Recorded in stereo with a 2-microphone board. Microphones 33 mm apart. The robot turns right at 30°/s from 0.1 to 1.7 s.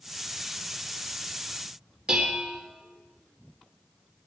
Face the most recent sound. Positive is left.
turn(degrees=-25)  # may be behind; listen again after turning